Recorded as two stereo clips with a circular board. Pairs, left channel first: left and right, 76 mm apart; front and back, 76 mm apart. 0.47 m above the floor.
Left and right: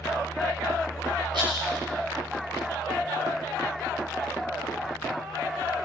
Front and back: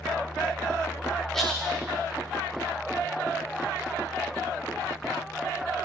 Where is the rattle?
85° right, 9 m.